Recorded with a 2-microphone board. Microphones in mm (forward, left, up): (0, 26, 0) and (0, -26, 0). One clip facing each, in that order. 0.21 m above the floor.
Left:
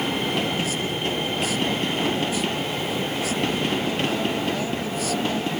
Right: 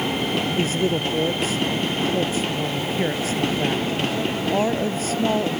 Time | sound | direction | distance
0.6 | a man speaking | 35° right (ahead or behind) | ?